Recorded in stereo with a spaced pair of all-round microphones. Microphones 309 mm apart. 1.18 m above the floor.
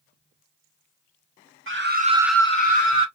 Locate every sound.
1.7 s a scream: 40° right (ahead or behind), 1.0 m; by 3.1 s 45° left (ahead or behind), 1.1 m